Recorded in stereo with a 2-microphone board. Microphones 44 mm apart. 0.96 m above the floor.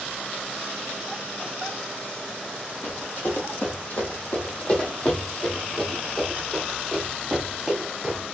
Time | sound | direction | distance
2.8 | running footsteps | 55° left (ahead or behind) | 1.9 m